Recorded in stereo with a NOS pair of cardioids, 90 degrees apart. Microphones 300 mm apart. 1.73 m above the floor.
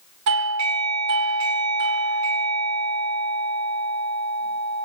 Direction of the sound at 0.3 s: 65° right.